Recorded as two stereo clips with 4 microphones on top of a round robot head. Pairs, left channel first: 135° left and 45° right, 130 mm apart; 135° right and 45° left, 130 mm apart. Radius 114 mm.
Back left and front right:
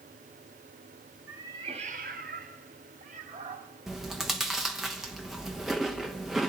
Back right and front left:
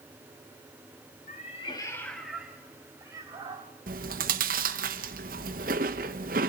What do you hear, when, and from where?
1.3 s a cat meowing: 120° right, 1.2 m; by 3.7 s 10° right, 2 m
3.9 s chewing: 40° left, 0.9 m